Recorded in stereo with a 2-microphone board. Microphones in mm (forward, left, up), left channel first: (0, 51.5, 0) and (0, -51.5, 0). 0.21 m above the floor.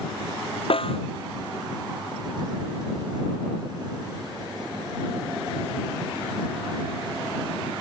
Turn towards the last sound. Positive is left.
turn(degrees=60)  # may be behind; listen again after turning